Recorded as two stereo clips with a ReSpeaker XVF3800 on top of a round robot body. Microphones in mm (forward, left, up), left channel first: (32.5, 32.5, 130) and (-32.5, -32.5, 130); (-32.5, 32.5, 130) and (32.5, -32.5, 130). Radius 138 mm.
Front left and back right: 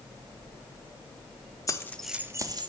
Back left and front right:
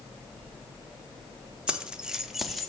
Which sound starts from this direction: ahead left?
Keys jangling, at 1.7 s.